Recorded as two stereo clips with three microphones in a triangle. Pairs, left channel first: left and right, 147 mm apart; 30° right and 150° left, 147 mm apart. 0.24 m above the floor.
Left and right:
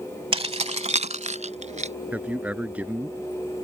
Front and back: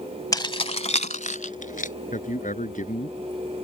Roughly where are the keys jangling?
Right.